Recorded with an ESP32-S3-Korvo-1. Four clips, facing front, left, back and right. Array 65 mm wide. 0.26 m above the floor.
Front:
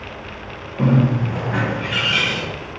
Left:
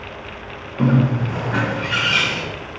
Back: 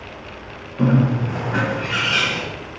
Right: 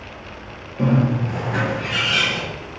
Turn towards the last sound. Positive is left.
turn(degrees=75)